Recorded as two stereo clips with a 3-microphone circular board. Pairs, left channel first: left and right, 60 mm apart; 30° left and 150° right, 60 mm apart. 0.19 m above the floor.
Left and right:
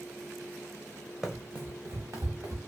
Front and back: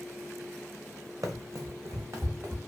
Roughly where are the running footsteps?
Behind.